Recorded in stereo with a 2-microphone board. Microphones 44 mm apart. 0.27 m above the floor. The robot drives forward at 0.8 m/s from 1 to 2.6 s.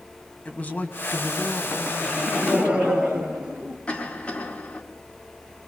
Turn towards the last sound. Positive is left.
turn(degrees=25)  # may be behind; listen again after turning